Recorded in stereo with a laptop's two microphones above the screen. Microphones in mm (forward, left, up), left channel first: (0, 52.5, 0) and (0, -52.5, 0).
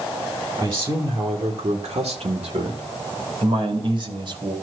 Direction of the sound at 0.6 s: 50° right (ahead or behind).